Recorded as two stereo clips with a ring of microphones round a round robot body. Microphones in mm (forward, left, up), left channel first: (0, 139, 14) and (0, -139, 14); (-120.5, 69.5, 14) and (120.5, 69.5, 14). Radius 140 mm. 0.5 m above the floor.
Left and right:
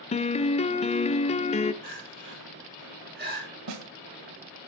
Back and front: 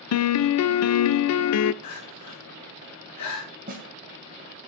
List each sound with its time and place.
0.1 s a piano: 160° left, 0.6 m
1.8 s crying: 145° right, 7 m
3.7 s a snare drum: 60° right, 1.5 m